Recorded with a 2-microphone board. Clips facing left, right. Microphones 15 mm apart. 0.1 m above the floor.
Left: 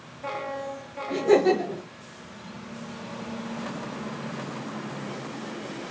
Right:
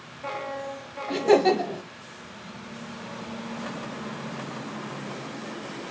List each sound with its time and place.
1.1 s laughter: 20° right (ahead or behind), 1.3 m